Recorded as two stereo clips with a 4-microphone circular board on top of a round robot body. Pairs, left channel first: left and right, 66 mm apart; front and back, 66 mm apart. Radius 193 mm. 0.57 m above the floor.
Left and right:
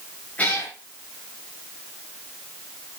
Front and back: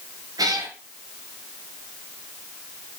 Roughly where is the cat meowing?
Behind left.